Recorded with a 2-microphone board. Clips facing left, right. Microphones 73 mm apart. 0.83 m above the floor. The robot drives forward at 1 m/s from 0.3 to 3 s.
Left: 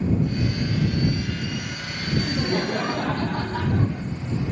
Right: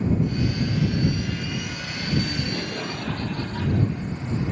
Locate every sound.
2.2 s laughter: 40° left (ahead or behind), 1.2 m; by 4.1 s 50° left (ahead or behind), 1.0 m